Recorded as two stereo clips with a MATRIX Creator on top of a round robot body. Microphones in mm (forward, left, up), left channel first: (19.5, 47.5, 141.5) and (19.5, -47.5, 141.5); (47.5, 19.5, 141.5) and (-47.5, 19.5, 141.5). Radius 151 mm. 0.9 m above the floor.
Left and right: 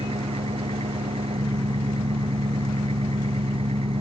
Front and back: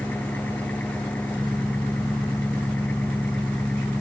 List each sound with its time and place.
0.0 s an engine running: 75° right